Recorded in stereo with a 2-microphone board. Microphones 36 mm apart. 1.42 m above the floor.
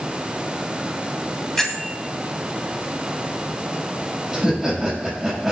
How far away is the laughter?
About 6 m.